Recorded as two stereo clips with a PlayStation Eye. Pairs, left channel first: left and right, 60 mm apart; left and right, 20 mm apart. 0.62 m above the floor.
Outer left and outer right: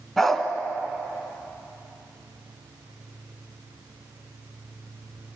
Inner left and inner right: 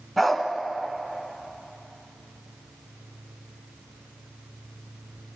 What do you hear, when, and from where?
0.2 s a dog barking: 5° left (ahead or behind), 2.5 m